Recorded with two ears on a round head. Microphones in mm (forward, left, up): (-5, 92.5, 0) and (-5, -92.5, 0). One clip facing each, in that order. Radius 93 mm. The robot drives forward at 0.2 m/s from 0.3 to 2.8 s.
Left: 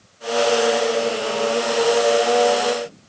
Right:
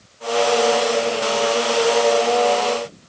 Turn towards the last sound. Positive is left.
No sound to turn to.